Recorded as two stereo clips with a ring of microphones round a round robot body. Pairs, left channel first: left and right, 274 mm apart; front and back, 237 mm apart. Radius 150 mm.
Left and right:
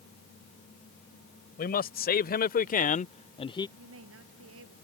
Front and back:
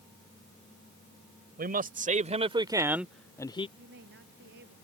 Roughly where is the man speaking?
Behind left.